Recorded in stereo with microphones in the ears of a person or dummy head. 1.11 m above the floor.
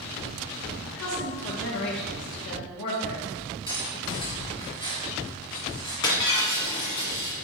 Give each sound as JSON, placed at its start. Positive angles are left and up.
{"t": 0.8, "sound": "a woman speaking", "side_deg": 80, "distance_m": 2.5}
{"t": 3.7, "sound": "cutlery clinking", "side_deg": 25, "distance_m": 1.5}
{"t": 6.0, "sound": "breaking glass", "side_deg": 25, "distance_m": 1.7}